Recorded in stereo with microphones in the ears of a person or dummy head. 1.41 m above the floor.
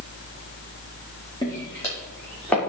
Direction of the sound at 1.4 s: 25° left (ahead or behind).